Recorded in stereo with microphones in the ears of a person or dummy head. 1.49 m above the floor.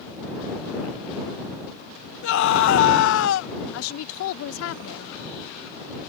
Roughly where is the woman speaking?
Left.